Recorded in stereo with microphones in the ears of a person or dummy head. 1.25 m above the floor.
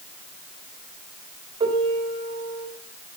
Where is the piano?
40° right (ahead or behind), 3 m.